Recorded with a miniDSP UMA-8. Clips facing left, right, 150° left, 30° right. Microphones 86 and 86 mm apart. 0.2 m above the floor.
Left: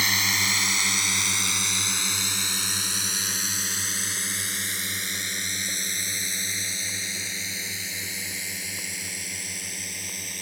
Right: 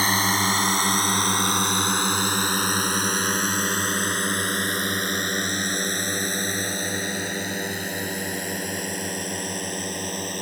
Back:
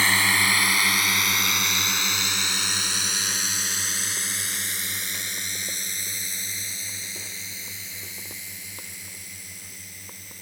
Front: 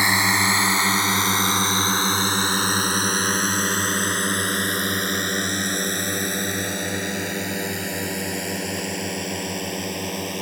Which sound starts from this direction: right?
A drone, at 0.0 s.